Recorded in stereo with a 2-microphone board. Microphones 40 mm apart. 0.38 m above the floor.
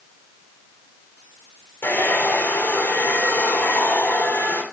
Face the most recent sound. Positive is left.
turn(degrees=70)  # may be behind; listen again after turning